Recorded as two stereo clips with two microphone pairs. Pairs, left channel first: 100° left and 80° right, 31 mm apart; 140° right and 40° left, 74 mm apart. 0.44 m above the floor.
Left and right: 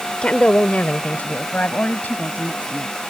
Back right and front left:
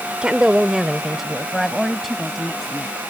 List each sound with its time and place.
0.2 s a woman speaking: 105° left; by 3.0 s 130° left